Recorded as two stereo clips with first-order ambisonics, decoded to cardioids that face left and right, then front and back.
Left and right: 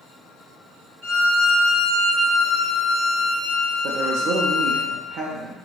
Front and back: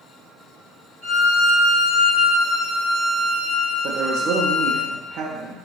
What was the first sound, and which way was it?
A violin, 40° right.